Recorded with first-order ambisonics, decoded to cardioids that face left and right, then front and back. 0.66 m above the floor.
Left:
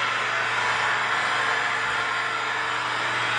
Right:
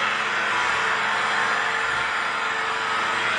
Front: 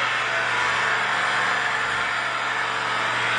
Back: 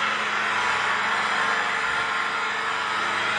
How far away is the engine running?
About 1.1 m.